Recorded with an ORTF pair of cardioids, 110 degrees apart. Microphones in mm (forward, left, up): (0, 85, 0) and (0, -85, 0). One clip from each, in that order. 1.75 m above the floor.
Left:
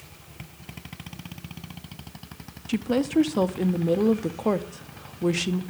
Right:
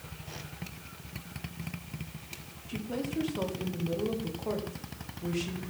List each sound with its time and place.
2.7 s a woman speaking: 60° left, 1.0 m